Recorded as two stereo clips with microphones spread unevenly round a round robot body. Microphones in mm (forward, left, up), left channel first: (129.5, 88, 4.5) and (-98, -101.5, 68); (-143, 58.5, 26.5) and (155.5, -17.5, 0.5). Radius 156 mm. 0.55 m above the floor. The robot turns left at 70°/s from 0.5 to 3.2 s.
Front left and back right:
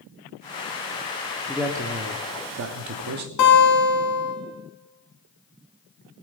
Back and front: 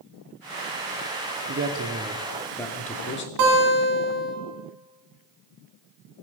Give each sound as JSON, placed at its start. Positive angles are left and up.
{"t": 1.5, "sound": "a man speaking", "azimuth_deg": -35, "distance_m": 0.8}
{"t": 3.4, "sound": "a guitar", "azimuth_deg": 10, "distance_m": 2.5}